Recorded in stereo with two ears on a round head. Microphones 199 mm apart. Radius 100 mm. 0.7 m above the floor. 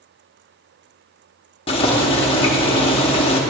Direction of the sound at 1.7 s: 25° left (ahead or behind).